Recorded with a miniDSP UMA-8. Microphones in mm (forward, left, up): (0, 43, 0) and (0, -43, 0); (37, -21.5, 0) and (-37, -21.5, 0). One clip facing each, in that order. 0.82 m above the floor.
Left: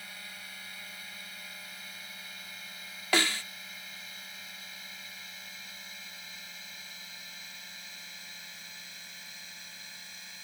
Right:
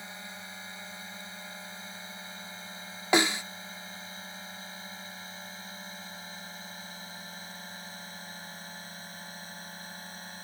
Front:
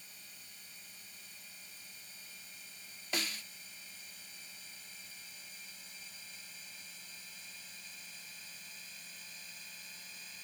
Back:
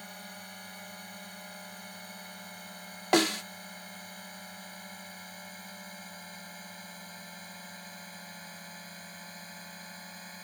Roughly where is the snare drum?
Behind.